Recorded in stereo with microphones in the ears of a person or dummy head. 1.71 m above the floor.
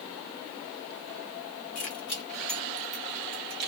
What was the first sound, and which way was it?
Keys jangling, 25° left (ahead or behind).